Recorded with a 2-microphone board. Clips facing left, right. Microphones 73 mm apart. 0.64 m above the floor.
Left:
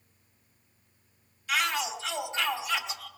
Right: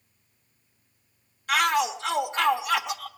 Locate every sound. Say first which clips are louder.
1.5 s a shout: right 6 dB; 50° right (ahead or behind), 1.4 m